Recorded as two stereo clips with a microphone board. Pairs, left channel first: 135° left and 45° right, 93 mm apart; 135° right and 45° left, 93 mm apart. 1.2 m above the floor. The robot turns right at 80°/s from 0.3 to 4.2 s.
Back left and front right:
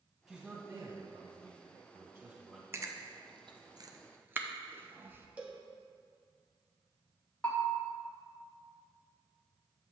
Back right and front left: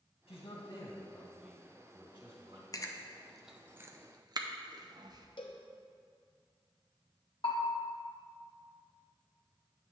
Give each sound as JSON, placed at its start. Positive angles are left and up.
{"t": 0.3, "sound": "a man speaking", "azimuth_deg": -130, "distance_m": 1.9}
{"t": 2.7, "sound": "chewing", "azimuth_deg": -100, "distance_m": 0.5}
{"t": 5.4, "sound": "a cowbell", "azimuth_deg": -115, "distance_m": 0.9}
{"t": 7.4, "sound": "a bell", "azimuth_deg": -145, "distance_m": 1.2}